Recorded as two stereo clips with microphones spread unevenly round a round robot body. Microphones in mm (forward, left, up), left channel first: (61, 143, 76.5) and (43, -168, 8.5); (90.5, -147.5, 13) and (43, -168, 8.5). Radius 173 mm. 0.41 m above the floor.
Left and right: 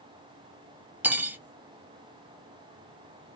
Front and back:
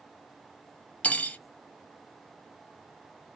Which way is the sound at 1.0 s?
30° right.